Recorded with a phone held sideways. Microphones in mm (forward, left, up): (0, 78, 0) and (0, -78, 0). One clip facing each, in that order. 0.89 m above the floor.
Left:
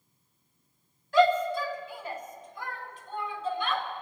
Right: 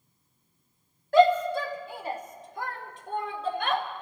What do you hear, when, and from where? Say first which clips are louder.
1.1 s a shout: right 3 dB; 55° right (ahead or behind), 2.5 m; by 3.8 s 80° right, 4 m